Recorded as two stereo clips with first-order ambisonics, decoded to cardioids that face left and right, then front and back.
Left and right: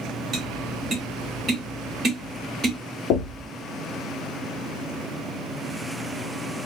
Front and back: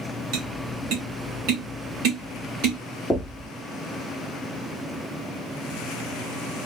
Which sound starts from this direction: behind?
Tapping, at 0.3 s.